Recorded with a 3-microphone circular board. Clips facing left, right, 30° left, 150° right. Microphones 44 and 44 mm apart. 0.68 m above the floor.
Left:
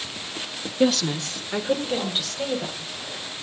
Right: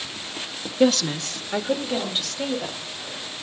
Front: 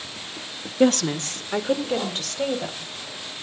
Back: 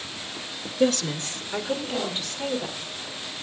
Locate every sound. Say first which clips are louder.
0.8 s a woman speaking: right 2 dB, front 4 dB; straight ahead, 0.7 m